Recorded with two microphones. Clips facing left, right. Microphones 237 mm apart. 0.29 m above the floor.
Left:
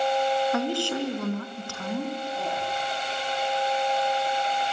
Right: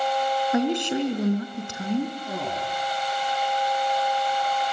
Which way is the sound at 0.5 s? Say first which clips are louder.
Right 4 dB; 20° right (ahead or behind).